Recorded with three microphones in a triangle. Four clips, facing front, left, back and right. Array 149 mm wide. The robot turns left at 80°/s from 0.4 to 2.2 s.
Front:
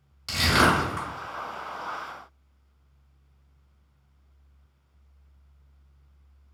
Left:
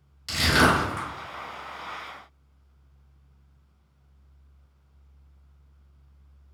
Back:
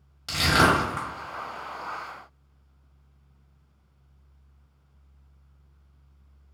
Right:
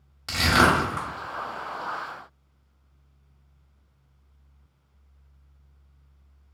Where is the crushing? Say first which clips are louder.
Right 1 dB, back 1 dB; 110° right, 1.8 m; by 1.1 s 165° right, 1.8 m.